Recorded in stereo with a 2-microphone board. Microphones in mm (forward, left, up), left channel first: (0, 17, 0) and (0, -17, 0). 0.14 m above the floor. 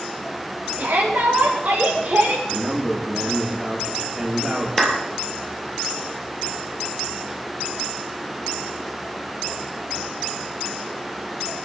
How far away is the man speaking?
About 7 m.